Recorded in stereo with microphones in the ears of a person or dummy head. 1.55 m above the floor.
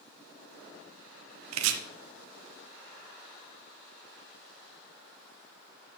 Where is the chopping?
85° right, 1.0 m.